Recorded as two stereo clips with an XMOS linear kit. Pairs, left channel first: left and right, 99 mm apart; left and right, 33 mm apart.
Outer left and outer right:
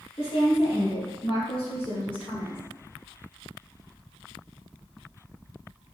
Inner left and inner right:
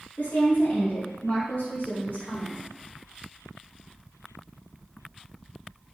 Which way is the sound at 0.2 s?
60° left (ahead or behind).